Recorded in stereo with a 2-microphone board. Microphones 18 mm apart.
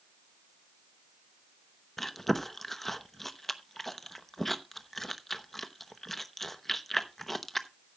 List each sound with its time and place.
2.0 s chewing: 15° left (ahead or behind), 0.8 m